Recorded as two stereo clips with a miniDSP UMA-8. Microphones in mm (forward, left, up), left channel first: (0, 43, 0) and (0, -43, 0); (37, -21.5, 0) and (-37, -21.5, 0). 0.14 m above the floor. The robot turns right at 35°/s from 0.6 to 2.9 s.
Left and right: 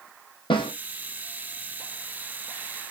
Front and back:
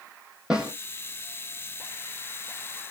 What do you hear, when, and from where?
0.5 s a snare drum: 100° left, 0.7 m; by 0.7 s 105° left, 0.7 m